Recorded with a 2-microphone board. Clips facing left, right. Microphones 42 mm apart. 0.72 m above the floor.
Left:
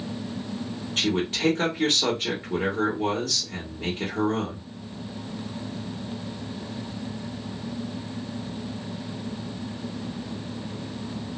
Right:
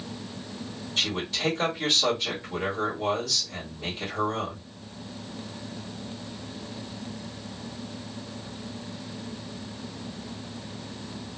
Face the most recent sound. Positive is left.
turn(degrees=45)  # may be behind; listen again after turning